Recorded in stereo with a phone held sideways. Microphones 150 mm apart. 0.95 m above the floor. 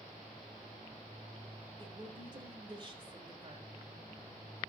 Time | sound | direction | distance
1.8 | a woman speaking | 30° right (ahead or behind) | 3.5 m